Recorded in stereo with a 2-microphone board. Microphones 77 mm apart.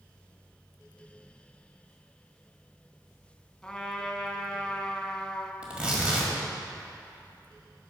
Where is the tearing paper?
15° right (ahead or behind), 1.4 m.